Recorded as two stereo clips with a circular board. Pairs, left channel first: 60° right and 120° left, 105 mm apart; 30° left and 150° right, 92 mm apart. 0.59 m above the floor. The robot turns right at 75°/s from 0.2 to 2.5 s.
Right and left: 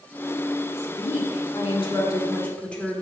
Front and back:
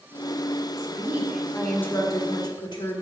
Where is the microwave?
I don't hear a microwave.